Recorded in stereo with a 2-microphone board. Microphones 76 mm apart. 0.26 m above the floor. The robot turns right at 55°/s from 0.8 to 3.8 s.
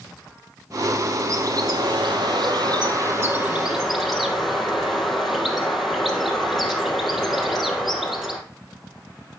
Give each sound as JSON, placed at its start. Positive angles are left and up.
{"t": 1.3, "sound": "a bird", "azimuth_deg": -140, "distance_m": 3.5}